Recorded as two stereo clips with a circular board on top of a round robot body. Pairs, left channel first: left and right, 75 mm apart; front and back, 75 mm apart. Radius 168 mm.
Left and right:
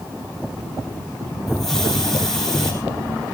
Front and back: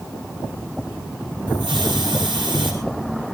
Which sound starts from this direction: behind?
A hiss, at 1.5 s.